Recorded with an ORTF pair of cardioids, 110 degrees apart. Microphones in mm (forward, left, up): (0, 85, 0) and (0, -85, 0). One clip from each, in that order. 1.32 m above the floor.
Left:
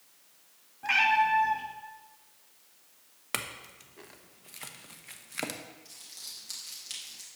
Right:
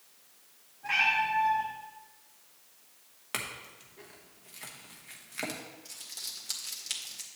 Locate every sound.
0.8 s a cat meowing: 50° left, 1.5 m
3.3 s a clink: 25° left, 0.9 m
5.8 s crumpling: 25° right, 2 m